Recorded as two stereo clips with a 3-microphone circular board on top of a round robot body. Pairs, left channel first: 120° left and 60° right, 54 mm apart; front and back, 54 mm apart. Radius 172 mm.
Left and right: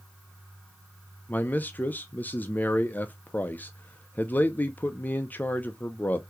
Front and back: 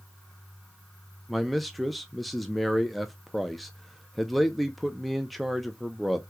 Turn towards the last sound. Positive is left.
turn(degrees=90)